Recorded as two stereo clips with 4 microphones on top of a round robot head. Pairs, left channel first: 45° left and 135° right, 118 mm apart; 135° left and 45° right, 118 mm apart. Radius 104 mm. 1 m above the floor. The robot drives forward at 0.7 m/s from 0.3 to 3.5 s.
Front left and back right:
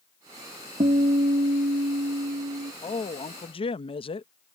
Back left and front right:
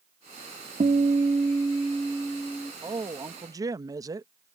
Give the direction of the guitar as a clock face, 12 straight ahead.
3 o'clock.